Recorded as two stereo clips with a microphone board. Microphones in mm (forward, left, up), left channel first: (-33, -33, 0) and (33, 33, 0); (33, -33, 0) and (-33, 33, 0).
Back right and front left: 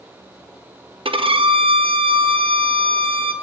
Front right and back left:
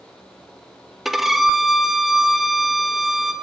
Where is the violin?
50° left, 1.4 m.